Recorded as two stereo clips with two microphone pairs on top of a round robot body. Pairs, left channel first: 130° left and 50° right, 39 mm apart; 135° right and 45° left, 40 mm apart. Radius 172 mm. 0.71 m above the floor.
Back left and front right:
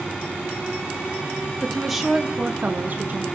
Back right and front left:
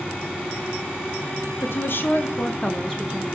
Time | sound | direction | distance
1.6 | a woman speaking | 145° right | 2.0 m